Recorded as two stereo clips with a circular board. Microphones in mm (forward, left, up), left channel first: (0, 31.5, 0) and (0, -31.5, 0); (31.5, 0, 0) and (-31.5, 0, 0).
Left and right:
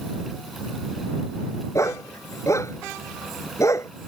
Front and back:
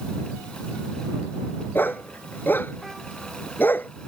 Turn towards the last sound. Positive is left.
turn(degrees=55)